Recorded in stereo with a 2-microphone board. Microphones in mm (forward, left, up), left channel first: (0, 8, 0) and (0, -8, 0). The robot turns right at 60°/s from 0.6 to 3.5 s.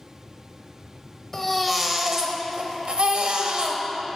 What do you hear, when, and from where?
1.3 s a baby crying: 160° left, 0.6 m; by 3.8 s 70° right, 0.6 m